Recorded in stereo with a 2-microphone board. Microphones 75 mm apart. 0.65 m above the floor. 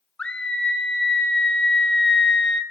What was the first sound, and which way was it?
A scream, 10° left (ahead or behind).